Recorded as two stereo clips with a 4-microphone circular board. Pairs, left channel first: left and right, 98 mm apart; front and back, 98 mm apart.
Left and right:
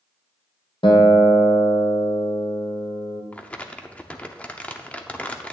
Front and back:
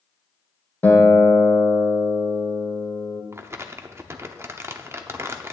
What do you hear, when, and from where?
0.8 s a guitar: 70° left, 1.6 m
3.3 s crumpling: 150° left, 0.8 m